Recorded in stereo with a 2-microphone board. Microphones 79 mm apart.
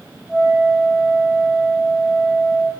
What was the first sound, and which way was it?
A flute, 15° left (ahead or behind).